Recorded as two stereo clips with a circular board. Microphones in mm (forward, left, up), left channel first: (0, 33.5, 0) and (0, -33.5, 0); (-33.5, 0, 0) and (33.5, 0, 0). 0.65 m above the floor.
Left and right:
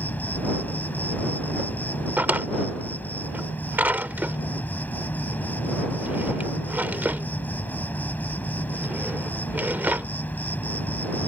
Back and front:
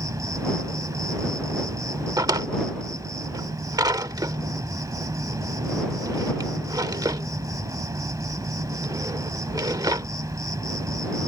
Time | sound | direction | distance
0.0 | an insect | 25° left | ?
2.2 | a drawer | 25° right | ?